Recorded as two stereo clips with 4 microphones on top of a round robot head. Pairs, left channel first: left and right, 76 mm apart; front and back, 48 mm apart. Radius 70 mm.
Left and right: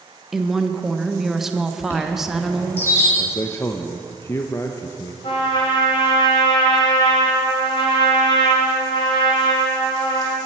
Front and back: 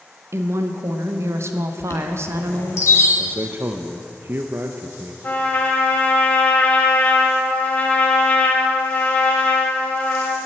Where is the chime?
25° left, 1.9 m.